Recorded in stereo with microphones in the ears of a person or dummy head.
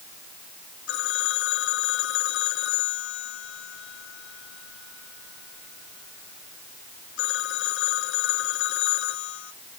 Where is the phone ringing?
70° left (ahead or behind).